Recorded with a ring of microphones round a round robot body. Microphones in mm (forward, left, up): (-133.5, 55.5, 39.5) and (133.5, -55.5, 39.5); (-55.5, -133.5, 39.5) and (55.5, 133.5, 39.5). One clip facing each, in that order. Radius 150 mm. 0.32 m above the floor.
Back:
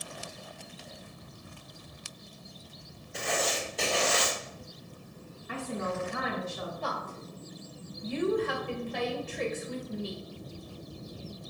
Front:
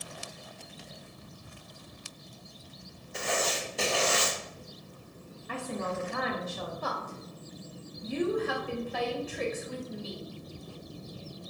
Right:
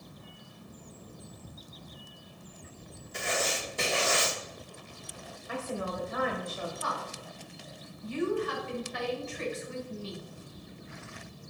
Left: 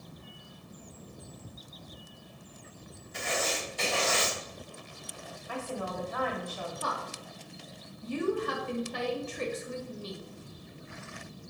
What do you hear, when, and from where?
3.1 s writing: 110° right, 2 m
5.5 s a woman speaking: 55° right, 1.2 m
6.8 s a woman speaking: 60° left, 1.8 m